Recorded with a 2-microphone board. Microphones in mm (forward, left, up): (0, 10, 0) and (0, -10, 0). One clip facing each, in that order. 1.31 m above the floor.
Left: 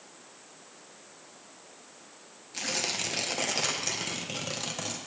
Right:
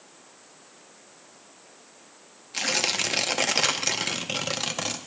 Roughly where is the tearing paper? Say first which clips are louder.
Right 6 dB; right.